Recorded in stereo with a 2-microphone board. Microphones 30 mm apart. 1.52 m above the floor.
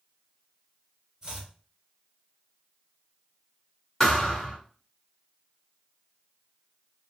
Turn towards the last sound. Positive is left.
turn(degrees=15)  # may be behind; listen again after turning